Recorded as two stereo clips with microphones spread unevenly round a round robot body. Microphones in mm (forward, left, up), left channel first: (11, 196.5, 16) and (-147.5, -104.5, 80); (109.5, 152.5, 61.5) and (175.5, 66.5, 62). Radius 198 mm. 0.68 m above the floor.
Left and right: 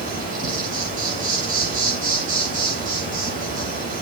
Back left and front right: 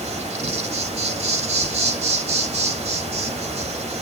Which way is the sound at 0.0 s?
45° right.